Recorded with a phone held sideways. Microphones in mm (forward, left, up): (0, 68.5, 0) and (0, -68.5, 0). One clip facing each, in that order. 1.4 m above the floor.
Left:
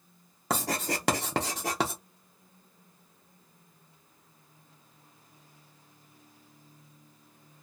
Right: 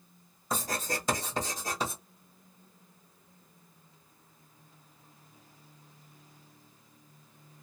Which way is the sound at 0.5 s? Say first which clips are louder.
Left 3 dB; 85° left.